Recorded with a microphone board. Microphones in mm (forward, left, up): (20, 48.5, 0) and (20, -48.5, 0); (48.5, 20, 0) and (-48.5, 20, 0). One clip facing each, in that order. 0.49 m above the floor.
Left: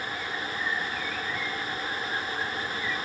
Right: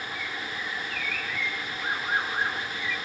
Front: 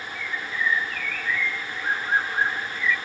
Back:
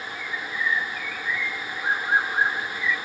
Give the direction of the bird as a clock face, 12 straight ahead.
4 o'clock.